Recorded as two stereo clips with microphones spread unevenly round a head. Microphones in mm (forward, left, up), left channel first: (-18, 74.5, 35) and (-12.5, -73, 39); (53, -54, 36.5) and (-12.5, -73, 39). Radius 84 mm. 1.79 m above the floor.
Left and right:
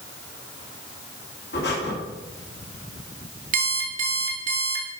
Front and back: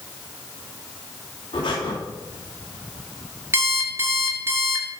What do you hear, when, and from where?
1.5 s breathing: 70° left, 2.5 m
3.5 s an alarm clock: 120° right, 2 m